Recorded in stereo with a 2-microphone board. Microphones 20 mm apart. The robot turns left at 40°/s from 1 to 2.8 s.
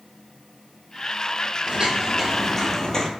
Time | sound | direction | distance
1.7 | footsteps | 50° right (ahead or behind) | 1.0 m